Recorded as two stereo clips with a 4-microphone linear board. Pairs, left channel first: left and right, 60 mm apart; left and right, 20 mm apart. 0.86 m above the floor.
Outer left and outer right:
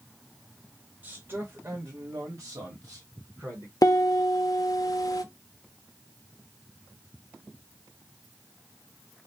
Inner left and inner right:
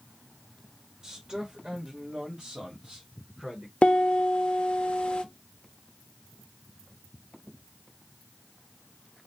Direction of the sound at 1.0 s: 25° right (ahead or behind).